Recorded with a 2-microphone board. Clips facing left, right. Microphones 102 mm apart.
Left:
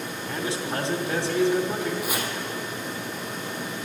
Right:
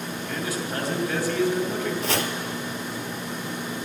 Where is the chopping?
85° right, 1.9 m.